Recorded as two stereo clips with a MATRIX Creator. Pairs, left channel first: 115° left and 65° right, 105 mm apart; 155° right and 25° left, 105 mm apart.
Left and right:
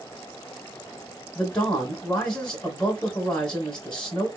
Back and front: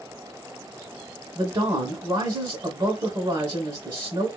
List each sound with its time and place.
1.4 s a man speaking: 35° left, 1.3 m